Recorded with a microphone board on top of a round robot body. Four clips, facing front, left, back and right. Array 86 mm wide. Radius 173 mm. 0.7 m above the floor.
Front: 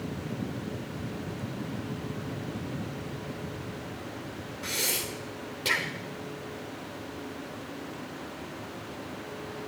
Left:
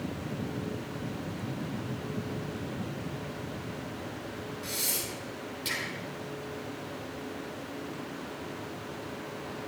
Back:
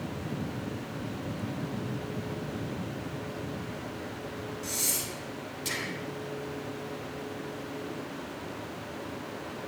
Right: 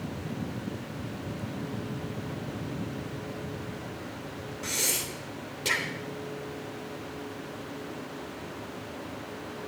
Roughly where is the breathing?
Ahead right.